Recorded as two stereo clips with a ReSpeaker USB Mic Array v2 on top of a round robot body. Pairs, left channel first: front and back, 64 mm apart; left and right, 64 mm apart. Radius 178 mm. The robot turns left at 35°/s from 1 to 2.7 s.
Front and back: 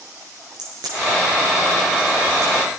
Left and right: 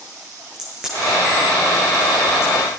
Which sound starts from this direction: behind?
A crack, at 0.5 s.